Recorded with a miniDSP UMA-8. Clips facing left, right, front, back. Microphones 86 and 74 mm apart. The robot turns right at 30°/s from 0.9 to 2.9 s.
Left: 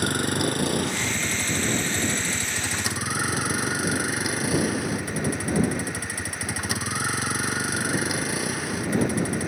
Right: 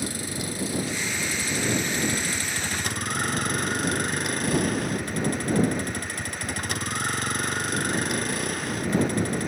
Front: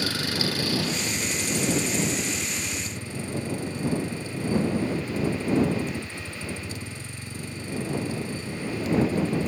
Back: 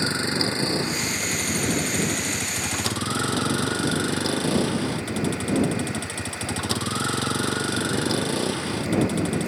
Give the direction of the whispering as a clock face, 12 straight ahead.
I don't hear whispering.